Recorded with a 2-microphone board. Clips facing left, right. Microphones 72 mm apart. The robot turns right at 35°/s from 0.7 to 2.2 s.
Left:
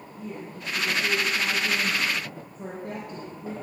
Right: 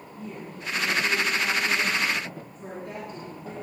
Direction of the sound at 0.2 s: 5° left.